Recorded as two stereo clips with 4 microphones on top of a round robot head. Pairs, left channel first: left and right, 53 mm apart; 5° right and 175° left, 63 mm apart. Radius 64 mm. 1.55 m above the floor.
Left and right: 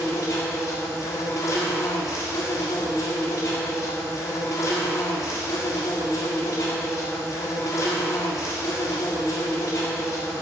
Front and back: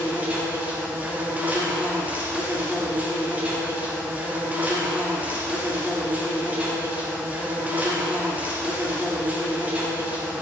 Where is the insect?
110° left, 1.5 m.